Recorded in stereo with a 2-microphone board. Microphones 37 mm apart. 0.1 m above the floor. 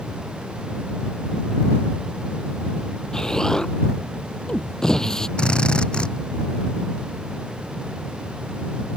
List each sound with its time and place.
3.1 s an explosion: 15° left (ahead or behind)
5.4 s a drill: 25° left (ahead or behind)